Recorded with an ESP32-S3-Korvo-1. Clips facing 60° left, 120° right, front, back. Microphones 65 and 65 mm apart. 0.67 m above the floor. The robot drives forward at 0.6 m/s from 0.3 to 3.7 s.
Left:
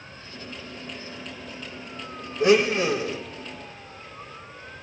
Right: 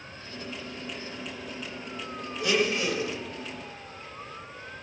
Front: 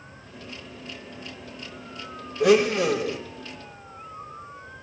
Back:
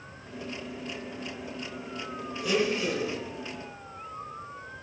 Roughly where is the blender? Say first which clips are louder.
Left 7 dB, front 9 dB; ahead.